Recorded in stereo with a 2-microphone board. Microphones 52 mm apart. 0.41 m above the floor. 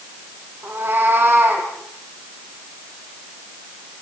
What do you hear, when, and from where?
0.6 s a cat meowing: 40° right (ahead or behind), 5.5 m